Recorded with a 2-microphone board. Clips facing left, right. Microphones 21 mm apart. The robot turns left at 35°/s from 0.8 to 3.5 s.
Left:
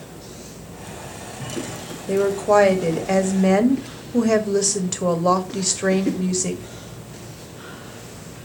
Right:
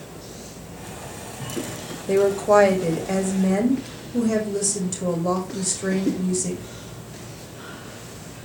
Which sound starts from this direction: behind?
A woman speaking, at 2.1 s.